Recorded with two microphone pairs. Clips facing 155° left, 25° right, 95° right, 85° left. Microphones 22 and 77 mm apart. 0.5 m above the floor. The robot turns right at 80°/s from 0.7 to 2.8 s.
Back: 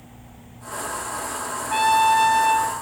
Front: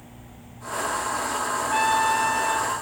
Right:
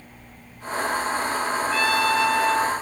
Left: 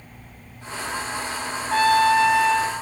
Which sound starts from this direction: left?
A trumpet, at 1.7 s.